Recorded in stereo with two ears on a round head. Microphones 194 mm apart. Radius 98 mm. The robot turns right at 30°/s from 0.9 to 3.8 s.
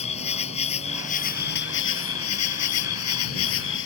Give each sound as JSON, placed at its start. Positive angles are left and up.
{"t": 0.0, "sound": "an insect", "azimuth_deg": 30}